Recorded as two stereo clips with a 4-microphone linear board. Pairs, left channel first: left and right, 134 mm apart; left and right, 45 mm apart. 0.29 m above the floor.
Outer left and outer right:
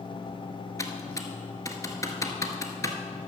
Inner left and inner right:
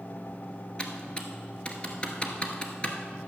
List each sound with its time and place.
0.8 s typing on a keyboard: 25° left (ahead or behind), 1.2 m